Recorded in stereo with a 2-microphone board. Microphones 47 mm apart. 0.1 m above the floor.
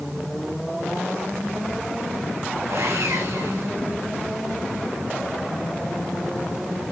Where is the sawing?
70° right (ahead or behind), 4.5 m.